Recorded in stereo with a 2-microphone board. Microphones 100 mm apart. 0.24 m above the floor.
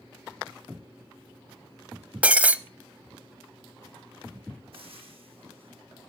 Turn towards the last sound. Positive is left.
turn(degrees=-65)  # may be behind; listen again after turning